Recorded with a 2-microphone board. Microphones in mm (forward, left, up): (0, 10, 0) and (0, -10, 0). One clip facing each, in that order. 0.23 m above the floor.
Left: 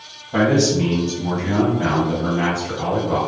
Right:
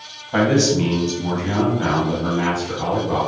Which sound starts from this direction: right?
A man speaking, at 0.3 s.